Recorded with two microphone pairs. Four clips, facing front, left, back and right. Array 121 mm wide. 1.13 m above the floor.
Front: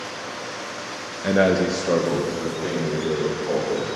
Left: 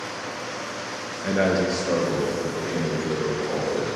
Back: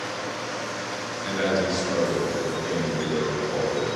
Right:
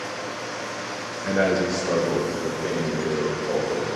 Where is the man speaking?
10° left, 0.9 m; by 3.9 s 5° right, 4.5 m.